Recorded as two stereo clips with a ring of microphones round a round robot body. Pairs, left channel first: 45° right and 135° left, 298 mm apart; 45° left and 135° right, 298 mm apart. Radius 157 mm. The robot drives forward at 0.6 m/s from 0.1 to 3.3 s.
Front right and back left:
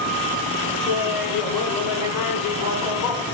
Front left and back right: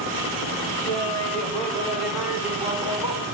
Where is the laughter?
35° right, 3 m; by 3.2 s 60° right, 2 m.